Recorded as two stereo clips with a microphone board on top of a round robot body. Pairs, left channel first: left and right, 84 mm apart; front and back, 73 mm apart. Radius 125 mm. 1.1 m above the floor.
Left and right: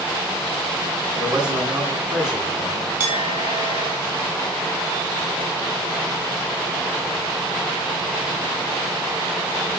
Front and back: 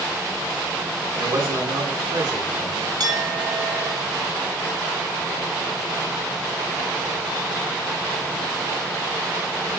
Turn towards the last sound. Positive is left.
turn(degrees=-155)